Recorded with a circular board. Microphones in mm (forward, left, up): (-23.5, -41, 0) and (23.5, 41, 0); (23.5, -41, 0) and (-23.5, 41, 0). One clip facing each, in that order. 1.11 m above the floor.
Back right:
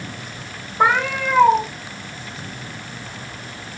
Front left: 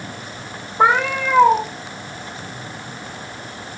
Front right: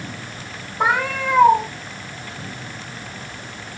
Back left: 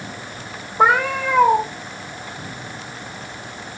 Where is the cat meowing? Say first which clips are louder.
Front left 2 dB, back left 4 dB; 115° left, 1.0 m.